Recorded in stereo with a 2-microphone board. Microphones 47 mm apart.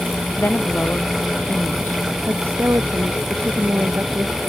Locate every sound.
0.4 s a woman speaking: 45° left (ahead or behind)
2.3 s a woman speaking: 60° right (ahead or behind)